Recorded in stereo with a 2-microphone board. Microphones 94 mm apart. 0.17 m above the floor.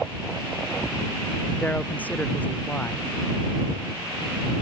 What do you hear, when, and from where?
1.6 s a man speaking: 20° left (ahead or behind)